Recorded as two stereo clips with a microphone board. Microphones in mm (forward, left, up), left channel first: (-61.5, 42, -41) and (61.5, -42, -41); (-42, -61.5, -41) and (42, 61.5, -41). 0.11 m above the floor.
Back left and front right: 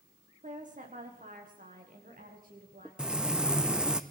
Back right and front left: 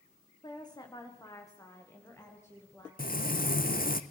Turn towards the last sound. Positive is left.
turn(degrees=-120)